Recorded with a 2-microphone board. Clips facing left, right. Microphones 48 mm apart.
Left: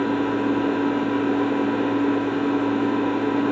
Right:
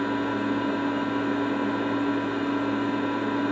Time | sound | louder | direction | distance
0.0 | an engine running | left 4 dB | 80° left | 1.1 m